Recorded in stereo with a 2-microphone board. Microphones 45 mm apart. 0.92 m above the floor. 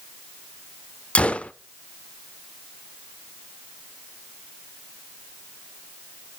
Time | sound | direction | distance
1.1 | a gunshot | 30° left (ahead or behind) | 0.6 m